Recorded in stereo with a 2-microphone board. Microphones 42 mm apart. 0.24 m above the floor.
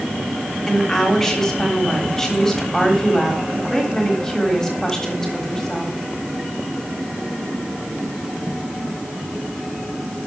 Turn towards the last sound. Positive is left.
turn(degrees=10)  # may be behind; listen again after turning